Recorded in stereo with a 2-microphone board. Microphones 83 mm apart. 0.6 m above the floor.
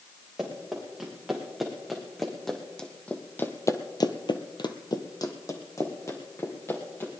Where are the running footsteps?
5° right (ahead or behind), 5 m; by 7.1 s 30° left (ahead or behind), 4 m.